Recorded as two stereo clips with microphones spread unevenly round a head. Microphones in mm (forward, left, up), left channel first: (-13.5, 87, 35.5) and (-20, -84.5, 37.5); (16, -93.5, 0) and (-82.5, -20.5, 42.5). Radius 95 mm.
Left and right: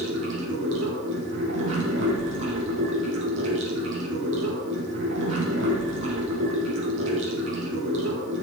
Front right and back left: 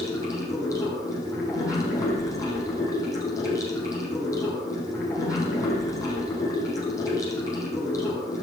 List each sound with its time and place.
0.0 s running water: 105° right, 6 m